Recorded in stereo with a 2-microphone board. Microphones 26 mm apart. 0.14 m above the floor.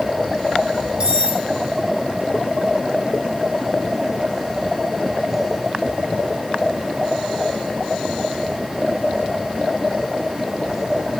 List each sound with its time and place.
1.0 s cutlery clinking: 40° right (ahead or behind), 3.5 m